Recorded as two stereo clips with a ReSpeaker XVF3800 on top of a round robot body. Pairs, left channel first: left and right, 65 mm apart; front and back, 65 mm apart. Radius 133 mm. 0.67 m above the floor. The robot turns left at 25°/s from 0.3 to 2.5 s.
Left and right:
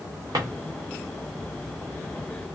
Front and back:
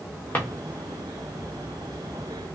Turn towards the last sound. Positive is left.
turn(degrees=-115)